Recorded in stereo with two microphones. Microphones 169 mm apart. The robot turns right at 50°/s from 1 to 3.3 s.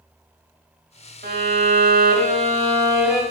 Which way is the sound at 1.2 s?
100° right.